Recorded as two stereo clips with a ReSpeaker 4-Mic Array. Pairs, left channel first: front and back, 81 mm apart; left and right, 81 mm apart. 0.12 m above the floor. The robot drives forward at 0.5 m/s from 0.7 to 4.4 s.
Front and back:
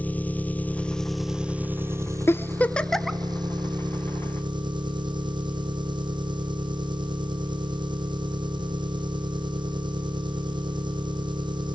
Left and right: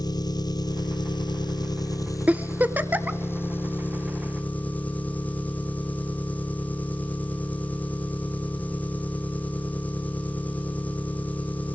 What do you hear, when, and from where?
0.0 s an engine running: 70° left, 0.7 m; by 11.8 s 160° left, 1.7 m
2.3 s a giggle: 30° right, 0.8 m; by 3.2 s 100° right, 0.7 m